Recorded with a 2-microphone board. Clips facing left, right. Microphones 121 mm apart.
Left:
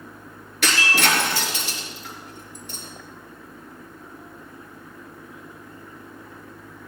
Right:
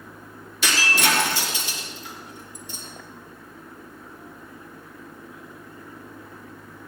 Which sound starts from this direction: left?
Breaking glass, at 0.6 s.